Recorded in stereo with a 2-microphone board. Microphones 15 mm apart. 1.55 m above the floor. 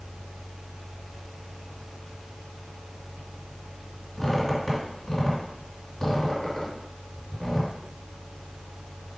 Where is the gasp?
I don't hear a gasp.